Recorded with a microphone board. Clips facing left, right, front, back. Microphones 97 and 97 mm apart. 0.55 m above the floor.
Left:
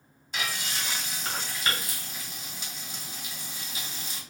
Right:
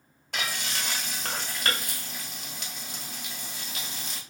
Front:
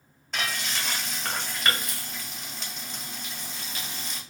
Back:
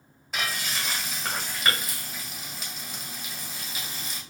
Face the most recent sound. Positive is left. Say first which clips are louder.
# right 1 dB, even
turn(degrees=-95)